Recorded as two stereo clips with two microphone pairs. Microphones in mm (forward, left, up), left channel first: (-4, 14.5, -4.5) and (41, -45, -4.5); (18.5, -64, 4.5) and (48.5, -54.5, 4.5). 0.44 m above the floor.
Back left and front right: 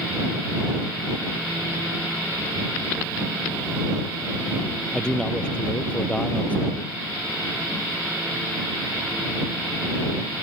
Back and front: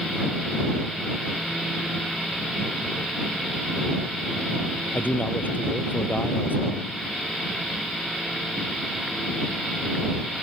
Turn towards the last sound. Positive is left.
turn(degrees=-160)